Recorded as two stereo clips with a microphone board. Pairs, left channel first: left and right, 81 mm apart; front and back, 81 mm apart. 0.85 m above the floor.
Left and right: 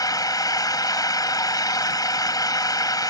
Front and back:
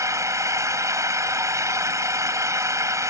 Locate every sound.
0.0 s an engine running: 130° left